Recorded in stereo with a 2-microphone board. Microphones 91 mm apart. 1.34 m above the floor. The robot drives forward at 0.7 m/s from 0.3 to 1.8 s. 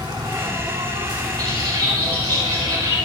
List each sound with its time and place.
0.0 s an insect: 60° right (ahead or behind), 4 m; by 3.1 s 75° right (ahead or behind), 3.5 m
1.4 s a bird: 45° right (ahead or behind), 6.5 m